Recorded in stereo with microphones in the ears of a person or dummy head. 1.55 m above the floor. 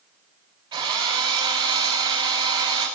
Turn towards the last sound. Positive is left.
turn(degrees=-30)  # may be behind; listen again after turning